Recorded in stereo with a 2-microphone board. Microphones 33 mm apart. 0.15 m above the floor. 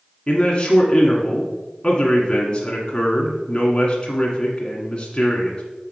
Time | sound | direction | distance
0.3 | a man speaking | 30° left (ahead or behind) | 1.3 m